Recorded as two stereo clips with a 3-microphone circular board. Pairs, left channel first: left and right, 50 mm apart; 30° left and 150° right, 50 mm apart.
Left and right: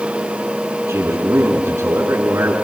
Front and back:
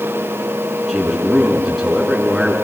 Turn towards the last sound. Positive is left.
turn(degrees=-65)